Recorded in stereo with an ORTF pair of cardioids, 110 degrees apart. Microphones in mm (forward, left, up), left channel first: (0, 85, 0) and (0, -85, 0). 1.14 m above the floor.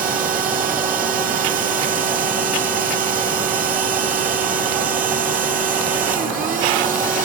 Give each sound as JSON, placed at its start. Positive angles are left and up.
{"t": 0.0, "sound": "a machine running", "azimuth_deg": -55, "distance_m": 1.1}